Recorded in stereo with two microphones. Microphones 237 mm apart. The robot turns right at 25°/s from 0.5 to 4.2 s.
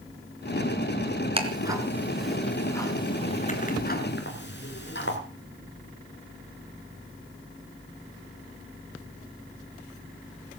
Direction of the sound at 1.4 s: 25° right (ahead or behind).